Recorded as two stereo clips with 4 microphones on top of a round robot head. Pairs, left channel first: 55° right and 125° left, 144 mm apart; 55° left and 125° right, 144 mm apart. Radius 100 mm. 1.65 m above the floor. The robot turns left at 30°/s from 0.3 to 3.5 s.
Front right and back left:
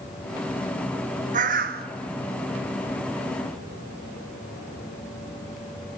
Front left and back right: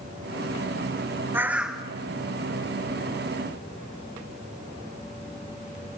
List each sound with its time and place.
1.3 s a bird: 160° left, 1.1 m; by 1.9 s 145° left, 1.1 m